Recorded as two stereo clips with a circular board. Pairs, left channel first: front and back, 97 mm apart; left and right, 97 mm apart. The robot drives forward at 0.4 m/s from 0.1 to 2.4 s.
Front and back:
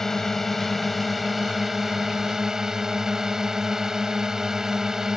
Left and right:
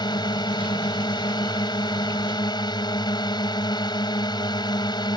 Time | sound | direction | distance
0.0 | a drone | 85° left | ?